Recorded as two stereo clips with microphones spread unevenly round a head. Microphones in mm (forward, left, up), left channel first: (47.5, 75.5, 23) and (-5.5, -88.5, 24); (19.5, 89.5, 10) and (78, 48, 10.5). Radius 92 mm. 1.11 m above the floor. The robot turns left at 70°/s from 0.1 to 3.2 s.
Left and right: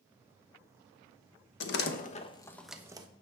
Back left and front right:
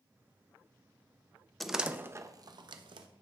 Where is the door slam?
60° left, 1.0 m; by 3.1 s 45° right, 1.0 m.